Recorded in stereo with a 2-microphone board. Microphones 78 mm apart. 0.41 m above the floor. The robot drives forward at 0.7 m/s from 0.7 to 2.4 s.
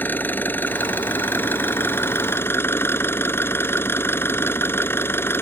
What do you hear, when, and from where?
0.0 s an engine running: 25° left (ahead or behind); by 5.4 s 30° left (ahead or behind)